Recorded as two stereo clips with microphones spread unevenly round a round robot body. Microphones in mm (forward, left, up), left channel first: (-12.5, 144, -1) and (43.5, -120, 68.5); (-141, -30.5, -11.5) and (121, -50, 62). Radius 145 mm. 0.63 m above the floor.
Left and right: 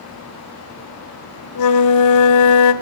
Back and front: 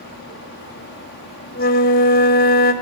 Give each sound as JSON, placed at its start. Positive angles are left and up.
{"t": 1.6, "sound": "a flute", "azimuth_deg": 115, "distance_m": 1.4}